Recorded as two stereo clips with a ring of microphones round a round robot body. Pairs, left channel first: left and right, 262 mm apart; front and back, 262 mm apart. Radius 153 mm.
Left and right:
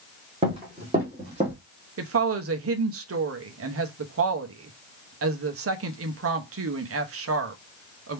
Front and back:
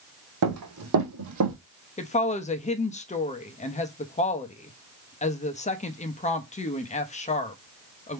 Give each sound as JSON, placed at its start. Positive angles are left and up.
{"t": 0.4, "sound": "running footsteps", "azimuth_deg": -160, "distance_m": 1.9}
{"t": 2.0, "sound": "a woman speaking", "azimuth_deg": -60, "distance_m": 1.0}